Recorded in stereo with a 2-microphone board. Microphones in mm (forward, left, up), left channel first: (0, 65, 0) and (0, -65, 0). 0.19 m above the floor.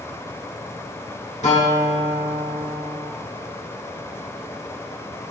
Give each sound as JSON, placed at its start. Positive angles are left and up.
{"t": 1.4, "sound": "a guitar", "side_deg": 70, "distance_m": 1.4}